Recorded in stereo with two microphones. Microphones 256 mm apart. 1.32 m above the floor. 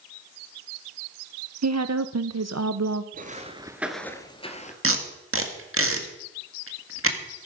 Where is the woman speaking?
85° right, 0.7 m.